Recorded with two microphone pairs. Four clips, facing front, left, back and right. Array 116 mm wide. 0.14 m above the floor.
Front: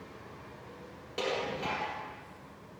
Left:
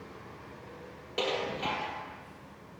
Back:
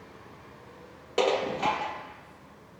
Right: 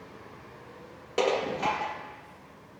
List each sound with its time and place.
1.2 s dishes clattering: 150° right, 2 m